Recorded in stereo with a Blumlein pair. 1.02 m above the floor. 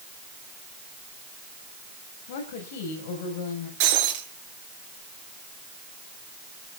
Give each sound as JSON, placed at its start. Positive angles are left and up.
{"t": 2.3, "sound": "a woman speaking", "azimuth_deg": 50, "distance_m": 5.0}
{"t": 3.8, "sound": "breaking glass", "azimuth_deg": -45, "distance_m": 4.5}